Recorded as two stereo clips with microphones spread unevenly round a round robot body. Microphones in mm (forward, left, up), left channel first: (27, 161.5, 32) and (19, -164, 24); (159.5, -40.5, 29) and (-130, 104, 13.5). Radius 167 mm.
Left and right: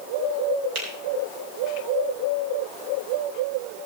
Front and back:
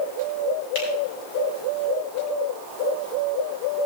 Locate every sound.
0.8 s a finger snap: 50° right, 7.5 m